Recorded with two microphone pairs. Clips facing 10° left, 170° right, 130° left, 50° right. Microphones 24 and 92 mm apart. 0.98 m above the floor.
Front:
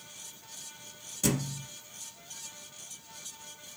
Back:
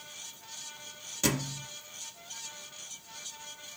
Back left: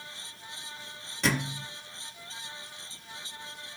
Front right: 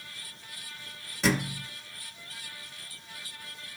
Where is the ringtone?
I don't hear a ringtone.